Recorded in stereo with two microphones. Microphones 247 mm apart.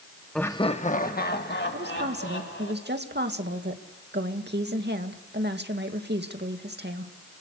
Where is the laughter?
Centre (ahead or behind), 0.8 m; by 2.7 s 50° left (ahead or behind), 3.5 m.